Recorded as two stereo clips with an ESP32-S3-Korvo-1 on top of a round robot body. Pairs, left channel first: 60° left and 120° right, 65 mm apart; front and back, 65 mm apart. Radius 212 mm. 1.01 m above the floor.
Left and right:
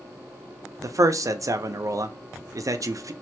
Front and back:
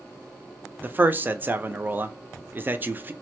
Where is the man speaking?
125° right, 0.6 m.